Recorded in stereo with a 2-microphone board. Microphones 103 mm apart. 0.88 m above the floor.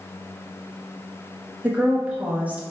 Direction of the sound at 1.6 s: 15° right (ahead or behind).